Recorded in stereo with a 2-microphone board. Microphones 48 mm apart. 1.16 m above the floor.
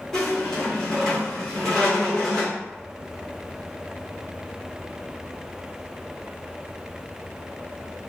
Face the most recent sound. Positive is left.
turn(degrees=10)  # may be behind; listen again after turning